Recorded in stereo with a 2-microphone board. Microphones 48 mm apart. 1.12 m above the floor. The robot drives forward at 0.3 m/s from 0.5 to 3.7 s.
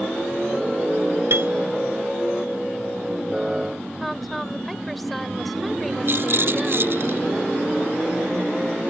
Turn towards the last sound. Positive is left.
turn(degrees=-60)  # may be behind; listen again after turning